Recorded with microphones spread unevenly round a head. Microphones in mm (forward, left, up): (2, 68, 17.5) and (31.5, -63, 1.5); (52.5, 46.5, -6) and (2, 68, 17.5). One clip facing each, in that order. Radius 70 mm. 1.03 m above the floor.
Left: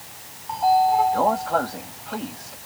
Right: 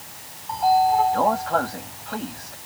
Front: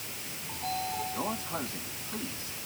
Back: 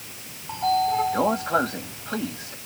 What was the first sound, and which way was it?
A sliding door, 170° right.